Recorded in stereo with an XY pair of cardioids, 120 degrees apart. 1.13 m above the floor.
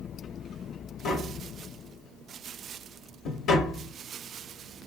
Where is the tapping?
60° left, 0.8 m.